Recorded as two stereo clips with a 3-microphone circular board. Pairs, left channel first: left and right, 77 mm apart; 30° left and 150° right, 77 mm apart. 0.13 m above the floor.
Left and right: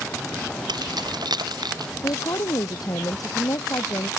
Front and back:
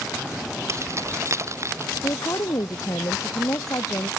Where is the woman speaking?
65° left.